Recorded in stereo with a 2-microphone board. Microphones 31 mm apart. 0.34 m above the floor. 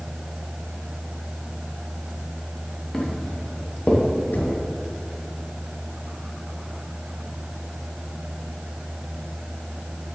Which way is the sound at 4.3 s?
75° left (ahead or behind).